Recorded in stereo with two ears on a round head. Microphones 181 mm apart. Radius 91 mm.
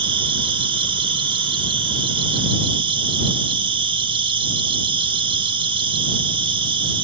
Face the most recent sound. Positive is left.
turn(degrees=-25)  # may be behind; listen again after turning